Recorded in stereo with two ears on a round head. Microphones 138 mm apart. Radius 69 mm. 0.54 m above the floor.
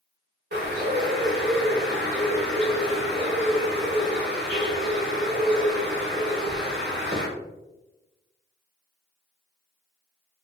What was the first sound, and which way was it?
A bird, 75° right (ahead or behind).